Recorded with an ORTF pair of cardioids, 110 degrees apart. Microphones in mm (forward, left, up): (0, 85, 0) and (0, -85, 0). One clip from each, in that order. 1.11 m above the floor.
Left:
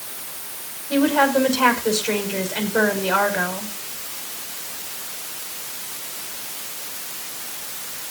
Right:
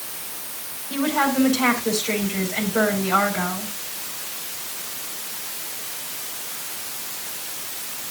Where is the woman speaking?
50° left, 6 m.